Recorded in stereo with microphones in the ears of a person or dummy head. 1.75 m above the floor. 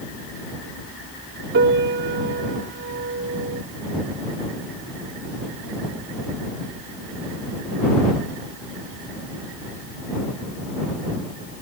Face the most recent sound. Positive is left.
turn(degrees=-65)  # may be behind; listen again after turning